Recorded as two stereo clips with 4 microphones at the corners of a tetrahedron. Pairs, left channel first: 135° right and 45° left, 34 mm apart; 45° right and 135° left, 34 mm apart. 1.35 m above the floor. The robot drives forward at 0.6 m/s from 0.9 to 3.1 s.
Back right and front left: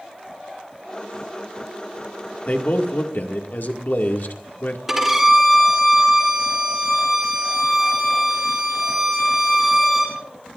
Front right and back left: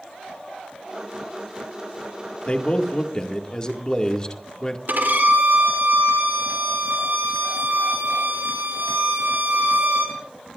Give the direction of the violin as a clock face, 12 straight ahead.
8 o'clock.